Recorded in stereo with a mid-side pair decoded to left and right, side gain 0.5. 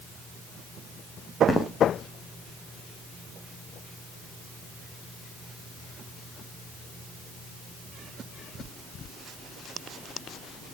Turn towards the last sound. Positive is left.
turn(degrees=25)